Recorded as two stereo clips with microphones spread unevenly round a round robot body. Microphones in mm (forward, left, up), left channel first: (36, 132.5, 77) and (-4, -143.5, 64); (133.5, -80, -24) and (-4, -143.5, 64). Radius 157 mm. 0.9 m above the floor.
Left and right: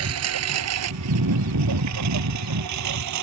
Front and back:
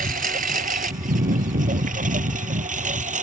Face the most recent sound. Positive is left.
turn(degrees=-125)